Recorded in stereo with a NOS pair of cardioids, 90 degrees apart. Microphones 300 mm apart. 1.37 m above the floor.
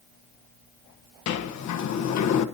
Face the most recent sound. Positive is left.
turn(degrees=65)